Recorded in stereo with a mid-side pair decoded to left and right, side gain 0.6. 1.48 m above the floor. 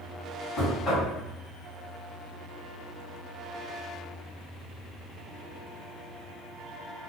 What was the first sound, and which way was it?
Knocking, 45° left.